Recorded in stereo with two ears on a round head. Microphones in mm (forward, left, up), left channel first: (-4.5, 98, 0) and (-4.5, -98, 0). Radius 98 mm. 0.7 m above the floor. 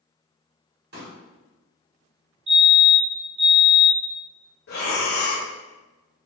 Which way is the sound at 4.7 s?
45° left (ahead or behind).